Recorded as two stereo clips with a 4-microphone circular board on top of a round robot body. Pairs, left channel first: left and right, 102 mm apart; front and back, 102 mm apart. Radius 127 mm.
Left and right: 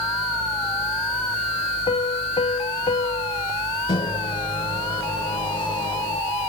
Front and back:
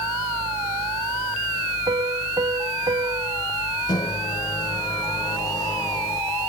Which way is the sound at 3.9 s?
50° left.